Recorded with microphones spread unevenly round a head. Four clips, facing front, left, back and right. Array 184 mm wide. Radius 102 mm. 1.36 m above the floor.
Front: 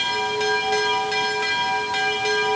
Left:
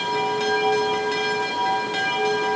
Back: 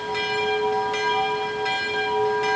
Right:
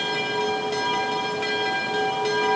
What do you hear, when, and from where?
Only background noise.